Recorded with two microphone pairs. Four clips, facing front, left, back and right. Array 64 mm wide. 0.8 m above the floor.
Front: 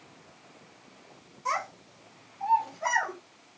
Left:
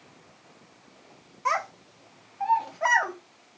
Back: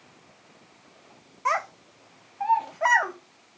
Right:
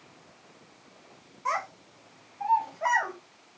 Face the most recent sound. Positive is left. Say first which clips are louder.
# left 3 dB, back 5 dB
turn(degrees=165)